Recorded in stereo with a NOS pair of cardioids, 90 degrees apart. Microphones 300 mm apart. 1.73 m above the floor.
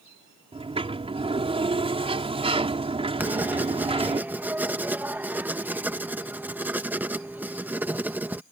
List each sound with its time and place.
0.5 s a sliding door: 20° right
3.2 s writing: 5° right